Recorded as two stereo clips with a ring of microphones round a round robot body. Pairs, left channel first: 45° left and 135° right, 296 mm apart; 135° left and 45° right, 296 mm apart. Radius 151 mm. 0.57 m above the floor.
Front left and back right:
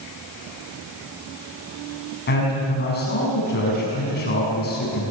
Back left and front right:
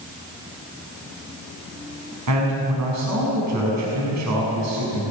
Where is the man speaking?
15° right, 6 m.